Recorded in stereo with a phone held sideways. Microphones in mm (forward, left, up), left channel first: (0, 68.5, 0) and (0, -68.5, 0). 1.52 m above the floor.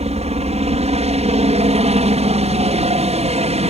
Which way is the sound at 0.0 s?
50° right (ahead or behind).